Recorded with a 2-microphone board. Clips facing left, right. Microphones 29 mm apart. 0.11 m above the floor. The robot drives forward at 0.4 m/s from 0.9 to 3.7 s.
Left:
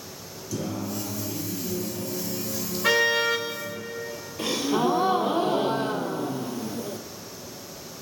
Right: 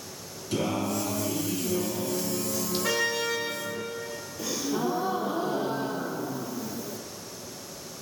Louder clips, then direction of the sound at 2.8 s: Left 8 dB; 40° left (ahead or behind).